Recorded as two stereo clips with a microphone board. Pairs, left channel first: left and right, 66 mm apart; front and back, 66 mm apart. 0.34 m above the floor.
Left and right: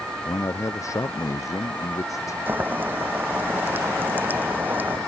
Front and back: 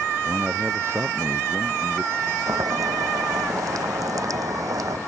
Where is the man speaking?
130° left.